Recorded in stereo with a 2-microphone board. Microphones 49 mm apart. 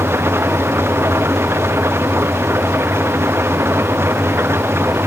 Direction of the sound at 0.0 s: 60° right (ahead or behind).